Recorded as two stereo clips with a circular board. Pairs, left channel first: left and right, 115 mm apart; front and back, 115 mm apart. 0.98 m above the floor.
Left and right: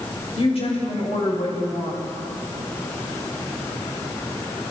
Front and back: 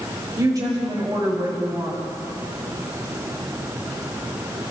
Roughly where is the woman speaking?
Behind left.